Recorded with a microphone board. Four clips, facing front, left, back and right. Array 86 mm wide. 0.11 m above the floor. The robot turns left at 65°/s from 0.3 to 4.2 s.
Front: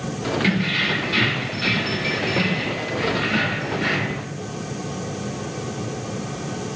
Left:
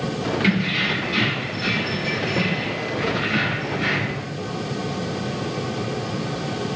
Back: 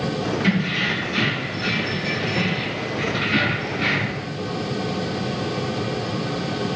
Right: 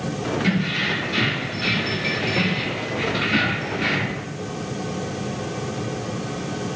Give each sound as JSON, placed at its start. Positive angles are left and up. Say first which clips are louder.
{"t": 0.4, "sound": "keys jangling", "louder": "left 1 dB, even", "azimuth_deg": 55, "distance_m": 1.2}